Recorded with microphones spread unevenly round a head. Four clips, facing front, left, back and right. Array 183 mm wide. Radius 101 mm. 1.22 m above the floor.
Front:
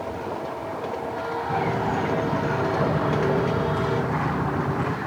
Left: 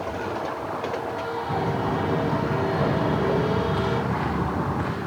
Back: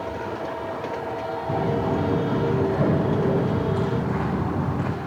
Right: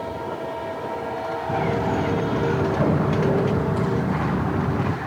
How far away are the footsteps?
About 9 m.